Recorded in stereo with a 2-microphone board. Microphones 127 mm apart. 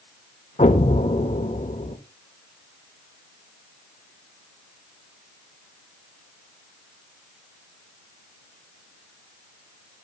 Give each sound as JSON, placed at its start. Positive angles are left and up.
{"t": 0.6, "sound": "an explosion", "side_deg": 80, "distance_m": 1.2}